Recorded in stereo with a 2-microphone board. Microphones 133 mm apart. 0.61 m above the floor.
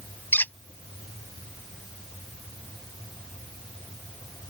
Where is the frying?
I don't hear frying.